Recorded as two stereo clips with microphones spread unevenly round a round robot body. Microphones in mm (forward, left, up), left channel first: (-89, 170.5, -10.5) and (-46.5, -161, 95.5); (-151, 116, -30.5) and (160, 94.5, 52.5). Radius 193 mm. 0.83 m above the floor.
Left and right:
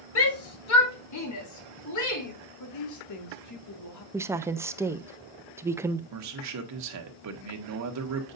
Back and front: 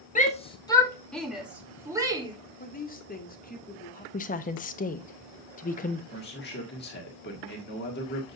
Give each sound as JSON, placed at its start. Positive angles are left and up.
{"t": 0.1, "sound": "a shout", "azimuth_deg": 125, "distance_m": 1.8}
{"t": 2.6, "sound": "a woman speaking", "azimuth_deg": 120, "distance_m": 1.9}
{"t": 4.1, "sound": "a woman speaking", "azimuth_deg": 175, "distance_m": 0.6}
{"t": 6.1, "sound": "a man speaking", "azimuth_deg": -130, "distance_m": 1.7}